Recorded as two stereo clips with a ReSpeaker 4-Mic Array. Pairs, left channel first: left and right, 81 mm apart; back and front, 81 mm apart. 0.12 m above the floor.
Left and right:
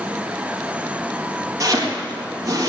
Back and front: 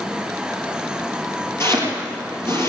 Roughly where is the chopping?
Behind right.